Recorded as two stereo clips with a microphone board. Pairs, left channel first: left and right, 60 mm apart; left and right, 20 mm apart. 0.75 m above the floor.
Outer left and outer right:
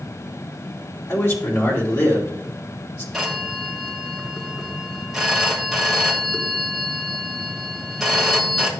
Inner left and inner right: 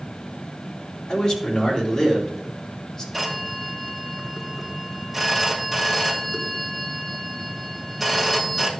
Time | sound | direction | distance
1.1 | a man speaking | 45° left (ahead or behind) | 2.5 m
3.1 | a phone ringing | centre (ahead or behind) | 2.5 m